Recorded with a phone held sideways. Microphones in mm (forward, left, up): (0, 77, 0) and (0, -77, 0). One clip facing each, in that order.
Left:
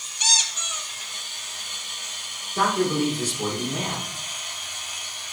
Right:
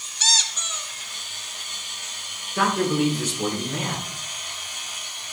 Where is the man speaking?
10° left (ahead or behind), 5 m.